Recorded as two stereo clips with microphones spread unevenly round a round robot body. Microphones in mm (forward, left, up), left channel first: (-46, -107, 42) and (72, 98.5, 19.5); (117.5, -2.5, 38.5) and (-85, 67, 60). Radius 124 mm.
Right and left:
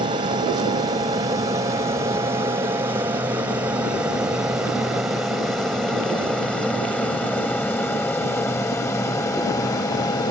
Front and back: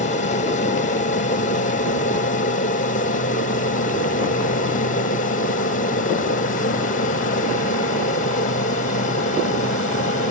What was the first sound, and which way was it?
An aircraft, 5° left.